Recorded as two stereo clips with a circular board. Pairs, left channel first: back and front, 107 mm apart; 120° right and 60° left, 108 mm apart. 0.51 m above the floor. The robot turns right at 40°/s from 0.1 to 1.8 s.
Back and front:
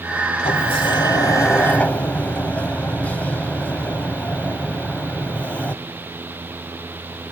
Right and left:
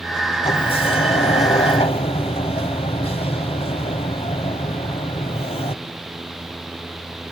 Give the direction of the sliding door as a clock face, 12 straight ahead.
5 o'clock.